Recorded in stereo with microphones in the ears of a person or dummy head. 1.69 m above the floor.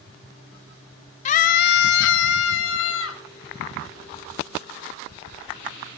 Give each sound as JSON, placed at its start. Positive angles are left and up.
{"t": 1.2, "sound": "a scream", "side_deg": 35, "distance_m": 0.7}